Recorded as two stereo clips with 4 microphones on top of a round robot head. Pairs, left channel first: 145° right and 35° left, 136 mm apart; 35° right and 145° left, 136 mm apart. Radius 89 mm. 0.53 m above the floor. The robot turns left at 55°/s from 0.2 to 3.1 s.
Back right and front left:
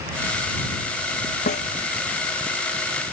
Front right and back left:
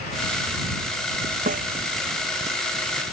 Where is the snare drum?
Straight behind; by 1.7 s 170° left.